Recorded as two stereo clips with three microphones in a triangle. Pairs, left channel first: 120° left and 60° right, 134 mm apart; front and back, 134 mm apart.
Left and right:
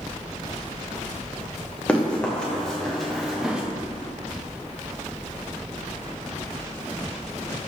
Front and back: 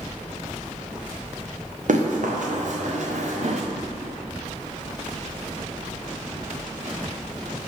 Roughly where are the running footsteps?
Behind.